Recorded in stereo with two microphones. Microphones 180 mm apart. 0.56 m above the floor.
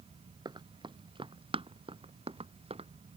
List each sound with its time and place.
0.5 s running footsteps: 25° right (ahead or behind); by 2.9 s 35° right (ahead or behind)